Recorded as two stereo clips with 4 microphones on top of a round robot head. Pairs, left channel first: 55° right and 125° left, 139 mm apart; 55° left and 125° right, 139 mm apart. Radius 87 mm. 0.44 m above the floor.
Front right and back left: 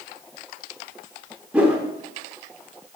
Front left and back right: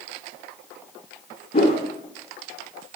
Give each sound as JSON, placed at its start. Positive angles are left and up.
{"t": 1.5, "sound": "a whoosh", "azimuth_deg": 45, "distance_m": 1.0}